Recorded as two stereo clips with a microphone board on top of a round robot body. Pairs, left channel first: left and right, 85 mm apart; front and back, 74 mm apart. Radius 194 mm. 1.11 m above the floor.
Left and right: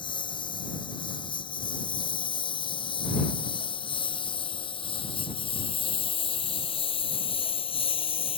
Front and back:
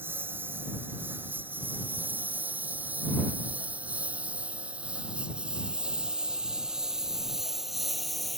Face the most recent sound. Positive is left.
turn(degrees=90)